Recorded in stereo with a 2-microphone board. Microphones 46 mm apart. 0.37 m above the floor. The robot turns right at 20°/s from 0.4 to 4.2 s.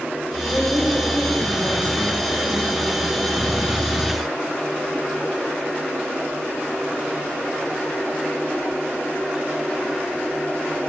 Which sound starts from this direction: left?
A woman speaking, at 0.5 s.